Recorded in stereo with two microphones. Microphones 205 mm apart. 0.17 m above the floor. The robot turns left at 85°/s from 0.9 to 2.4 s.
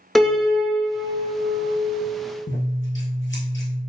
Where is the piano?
Straight ahead, 0.5 m; by 2.0 s 95° right, 0.5 m.